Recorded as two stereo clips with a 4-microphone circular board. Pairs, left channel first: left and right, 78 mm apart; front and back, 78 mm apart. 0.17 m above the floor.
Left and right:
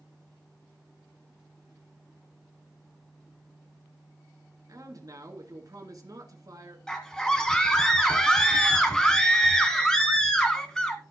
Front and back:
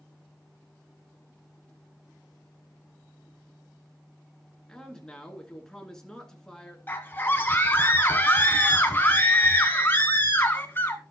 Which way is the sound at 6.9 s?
20° left.